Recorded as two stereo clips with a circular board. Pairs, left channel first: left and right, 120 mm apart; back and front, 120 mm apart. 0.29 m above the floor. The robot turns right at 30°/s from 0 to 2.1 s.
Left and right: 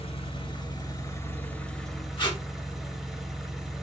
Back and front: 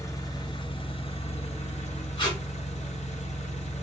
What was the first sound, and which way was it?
An engine running, 120° left.